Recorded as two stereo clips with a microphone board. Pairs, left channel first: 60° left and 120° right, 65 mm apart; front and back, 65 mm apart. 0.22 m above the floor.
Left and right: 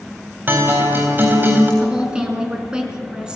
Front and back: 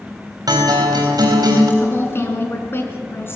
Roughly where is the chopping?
No chopping in this recording.